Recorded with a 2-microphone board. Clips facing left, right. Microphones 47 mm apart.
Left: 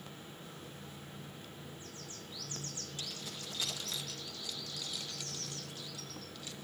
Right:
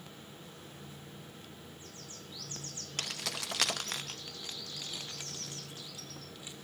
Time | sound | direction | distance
3.0 | keys jangling | 65° right (ahead or behind) | 0.6 m